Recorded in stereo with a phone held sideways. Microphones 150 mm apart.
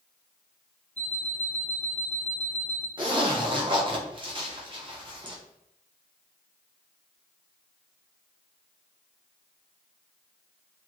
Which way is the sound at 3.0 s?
35° right (ahead or behind).